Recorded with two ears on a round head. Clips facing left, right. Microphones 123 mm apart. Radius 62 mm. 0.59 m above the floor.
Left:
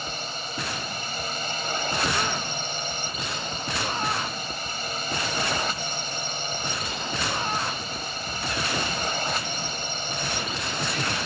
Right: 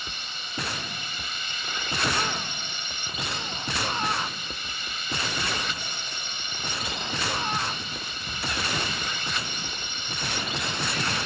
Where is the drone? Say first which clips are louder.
Left 7 dB; 35° left (ahead or behind).